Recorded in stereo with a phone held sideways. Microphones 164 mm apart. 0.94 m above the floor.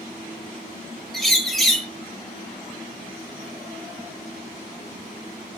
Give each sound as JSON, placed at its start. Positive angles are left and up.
{"t": 1.1, "sound": "a bird", "side_deg": 0, "distance_m": 0.8}